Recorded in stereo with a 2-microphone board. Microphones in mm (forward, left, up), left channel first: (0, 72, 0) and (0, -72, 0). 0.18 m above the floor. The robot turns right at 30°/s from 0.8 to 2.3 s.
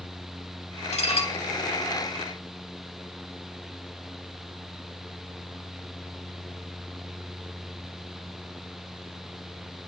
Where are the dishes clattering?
50° left (ahead or behind), 1.8 m; by 1.4 s 40° left (ahead or behind), 1.8 m.